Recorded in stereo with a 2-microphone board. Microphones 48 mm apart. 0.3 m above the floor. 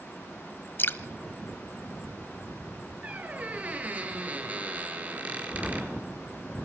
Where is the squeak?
35° right (ahead or behind), 4 m.